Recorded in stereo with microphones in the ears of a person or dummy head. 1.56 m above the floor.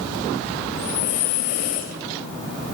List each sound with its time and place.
0.7 s breathing: 45° left (ahead or behind), 2 m